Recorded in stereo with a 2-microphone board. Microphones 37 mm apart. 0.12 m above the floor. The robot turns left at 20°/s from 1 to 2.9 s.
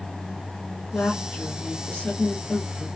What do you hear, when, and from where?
0.9 s a woman speaking: 145° left, 1.6 m; by 2.9 s 105° left, 1.6 m